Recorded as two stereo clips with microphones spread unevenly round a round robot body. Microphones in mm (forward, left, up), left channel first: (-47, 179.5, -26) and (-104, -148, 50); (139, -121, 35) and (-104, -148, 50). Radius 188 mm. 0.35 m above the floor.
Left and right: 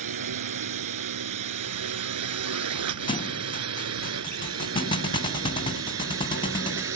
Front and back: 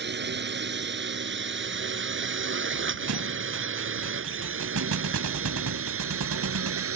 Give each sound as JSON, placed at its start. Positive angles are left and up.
{"t": 0.0, "sound": "a drone", "azimuth_deg": -130}
{"t": 3.1, "sound": "a thud", "azimuth_deg": 150}